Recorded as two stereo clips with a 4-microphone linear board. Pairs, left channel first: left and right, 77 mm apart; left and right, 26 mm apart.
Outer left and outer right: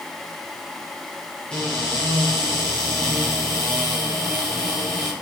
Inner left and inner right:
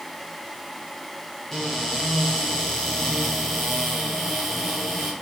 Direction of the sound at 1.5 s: 10° left (ahead or behind).